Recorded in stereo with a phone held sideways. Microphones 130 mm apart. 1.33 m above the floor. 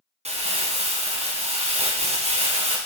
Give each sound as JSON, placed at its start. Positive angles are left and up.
{"t": 0.2, "sound": "crumpling", "side_deg": -60, "distance_m": 1.1}